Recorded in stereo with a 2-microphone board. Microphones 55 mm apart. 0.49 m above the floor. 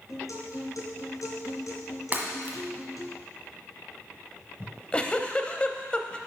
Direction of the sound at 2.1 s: 35° right (ahead or behind).